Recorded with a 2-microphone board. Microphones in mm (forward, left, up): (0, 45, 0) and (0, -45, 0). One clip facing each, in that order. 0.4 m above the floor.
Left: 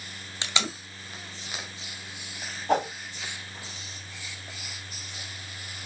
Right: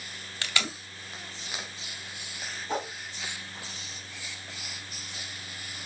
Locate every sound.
0.4 s tape being pulled: 20° left (ahead or behind), 1.8 m
2.7 s a whoosh: 65° left (ahead or behind), 2.5 m